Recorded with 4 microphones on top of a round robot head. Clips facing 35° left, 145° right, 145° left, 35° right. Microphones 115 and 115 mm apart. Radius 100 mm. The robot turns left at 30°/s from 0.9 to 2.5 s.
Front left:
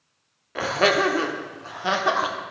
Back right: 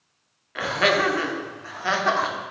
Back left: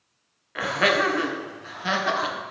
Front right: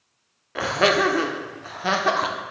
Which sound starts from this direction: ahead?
Laughter, at 0.6 s.